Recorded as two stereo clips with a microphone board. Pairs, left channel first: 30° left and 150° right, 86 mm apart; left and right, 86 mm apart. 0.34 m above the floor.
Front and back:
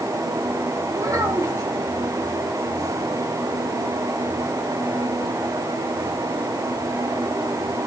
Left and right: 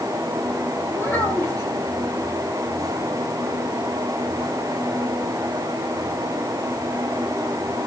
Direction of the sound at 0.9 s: 155° left.